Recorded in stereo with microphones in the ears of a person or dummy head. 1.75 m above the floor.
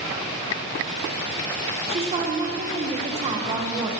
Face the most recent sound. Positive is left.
turn(degrees=-30)  # may be behind; listen again after turning